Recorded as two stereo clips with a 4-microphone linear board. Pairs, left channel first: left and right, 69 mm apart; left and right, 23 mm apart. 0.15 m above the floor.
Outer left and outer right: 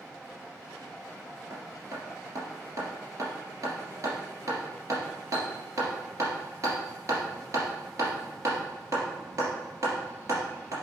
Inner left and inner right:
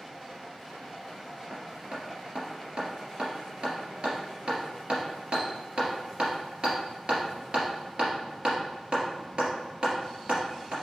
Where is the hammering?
50° right (ahead or behind), 2.5 m.